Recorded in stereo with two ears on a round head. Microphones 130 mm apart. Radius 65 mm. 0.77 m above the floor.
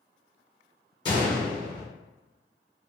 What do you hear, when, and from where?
1.1 s a gunshot: 30° left (ahead or behind), 0.9 m